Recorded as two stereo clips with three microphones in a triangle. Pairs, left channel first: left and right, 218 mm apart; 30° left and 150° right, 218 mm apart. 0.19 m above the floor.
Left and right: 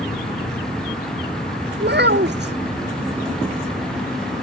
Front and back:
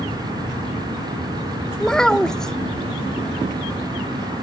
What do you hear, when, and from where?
1.8 s a child speaking: 55° right